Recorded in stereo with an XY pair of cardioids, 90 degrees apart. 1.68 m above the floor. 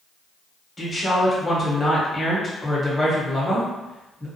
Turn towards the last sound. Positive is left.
turn(degrees=25)